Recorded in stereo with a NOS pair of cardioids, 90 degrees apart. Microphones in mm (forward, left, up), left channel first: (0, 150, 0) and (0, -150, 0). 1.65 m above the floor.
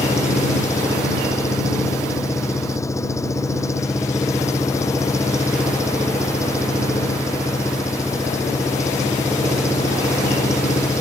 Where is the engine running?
10° left.